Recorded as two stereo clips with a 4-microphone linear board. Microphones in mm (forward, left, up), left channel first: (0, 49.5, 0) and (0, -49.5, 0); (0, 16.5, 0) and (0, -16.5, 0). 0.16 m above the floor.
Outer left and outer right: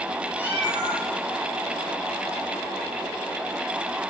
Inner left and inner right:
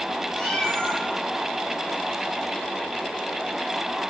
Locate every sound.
0.3 s a cat meowing: 25° left (ahead or behind), 2.0 m